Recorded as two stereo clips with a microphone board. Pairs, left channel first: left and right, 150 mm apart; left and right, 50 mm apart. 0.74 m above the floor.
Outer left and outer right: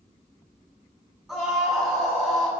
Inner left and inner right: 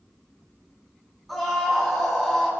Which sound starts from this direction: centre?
A scream, at 1.3 s.